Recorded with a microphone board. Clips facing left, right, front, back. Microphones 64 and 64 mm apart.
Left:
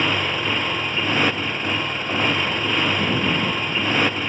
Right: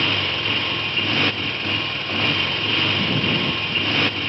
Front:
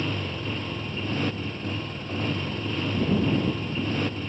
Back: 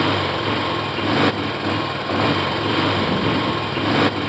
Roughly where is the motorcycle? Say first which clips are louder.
Left 2 dB, back 11 dB; behind.